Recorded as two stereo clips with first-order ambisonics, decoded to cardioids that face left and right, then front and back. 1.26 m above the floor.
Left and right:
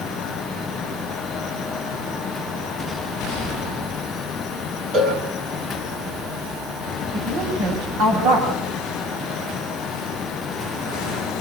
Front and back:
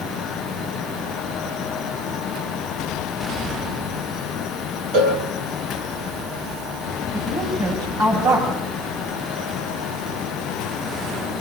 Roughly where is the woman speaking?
Behind right.